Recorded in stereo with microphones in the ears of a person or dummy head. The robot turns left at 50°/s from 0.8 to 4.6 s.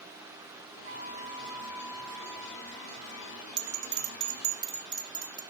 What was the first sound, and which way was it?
A flute, 140° right.